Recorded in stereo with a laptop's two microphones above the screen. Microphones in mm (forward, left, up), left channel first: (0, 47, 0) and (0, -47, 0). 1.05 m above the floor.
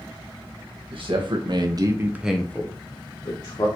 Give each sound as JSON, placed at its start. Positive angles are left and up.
{"t": 0.9, "sound": "a man speaking", "side_deg": -65, "distance_m": 1.3}